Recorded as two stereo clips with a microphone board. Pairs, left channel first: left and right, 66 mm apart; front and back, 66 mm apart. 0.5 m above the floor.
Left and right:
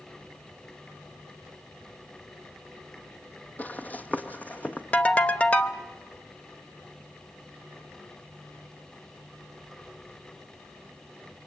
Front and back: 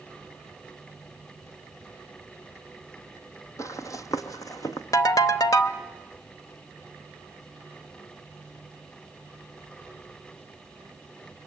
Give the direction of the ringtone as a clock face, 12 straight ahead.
11 o'clock.